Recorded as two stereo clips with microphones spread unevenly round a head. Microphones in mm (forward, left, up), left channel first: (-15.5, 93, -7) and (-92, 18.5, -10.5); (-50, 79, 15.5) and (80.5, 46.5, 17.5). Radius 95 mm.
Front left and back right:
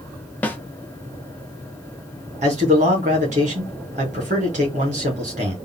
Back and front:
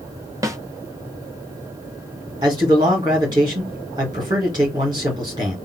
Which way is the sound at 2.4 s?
85° right.